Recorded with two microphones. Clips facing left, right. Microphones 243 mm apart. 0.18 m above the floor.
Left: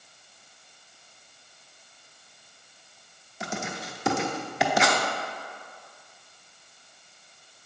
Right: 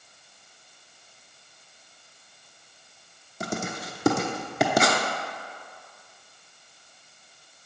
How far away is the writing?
About 0.9 m.